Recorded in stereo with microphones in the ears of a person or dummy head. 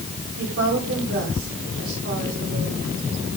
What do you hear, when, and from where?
0.4 s a woman speaking: 60° right (ahead or behind), 5.5 m